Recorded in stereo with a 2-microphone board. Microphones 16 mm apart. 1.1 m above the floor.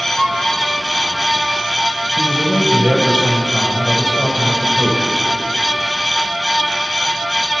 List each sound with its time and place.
0.2 s a violin: 50° right (ahead or behind), 4.5 m
2.2 s a man speaking: 60° right (ahead or behind), 4.5 m